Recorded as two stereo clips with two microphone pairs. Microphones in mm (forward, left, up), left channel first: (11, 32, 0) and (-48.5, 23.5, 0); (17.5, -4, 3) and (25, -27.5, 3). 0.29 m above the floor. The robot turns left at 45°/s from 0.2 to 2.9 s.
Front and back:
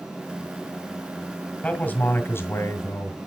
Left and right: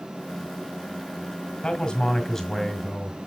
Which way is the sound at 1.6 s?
75° left.